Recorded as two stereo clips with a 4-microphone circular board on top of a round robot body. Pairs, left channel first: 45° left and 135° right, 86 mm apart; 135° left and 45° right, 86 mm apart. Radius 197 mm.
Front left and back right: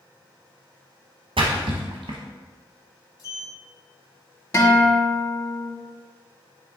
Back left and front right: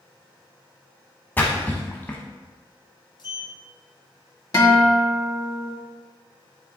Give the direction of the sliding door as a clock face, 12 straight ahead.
9 o'clock.